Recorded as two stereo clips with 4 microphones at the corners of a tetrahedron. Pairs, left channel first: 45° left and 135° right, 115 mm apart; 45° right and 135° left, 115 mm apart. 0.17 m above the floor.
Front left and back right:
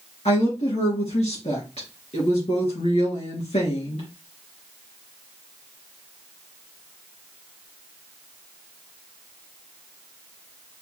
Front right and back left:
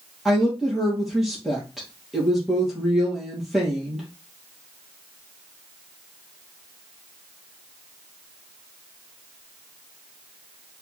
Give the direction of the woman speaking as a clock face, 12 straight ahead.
10 o'clock.